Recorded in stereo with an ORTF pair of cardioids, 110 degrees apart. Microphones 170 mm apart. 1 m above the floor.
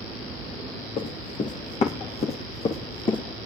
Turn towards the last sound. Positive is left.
turn(degrees=30)